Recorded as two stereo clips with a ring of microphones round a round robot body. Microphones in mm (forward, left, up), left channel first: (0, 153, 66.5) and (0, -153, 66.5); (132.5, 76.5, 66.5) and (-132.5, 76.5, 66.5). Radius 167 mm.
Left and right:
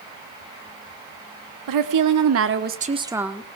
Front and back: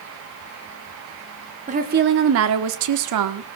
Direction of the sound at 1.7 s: 115° right.